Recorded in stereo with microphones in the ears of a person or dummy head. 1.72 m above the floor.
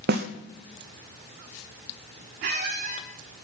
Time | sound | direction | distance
0.1 | a snare drum | 50° right (ahead or behind) | 0.9 m
2.4 | a squeak | 40° right (ahead or behind) | 1.5 m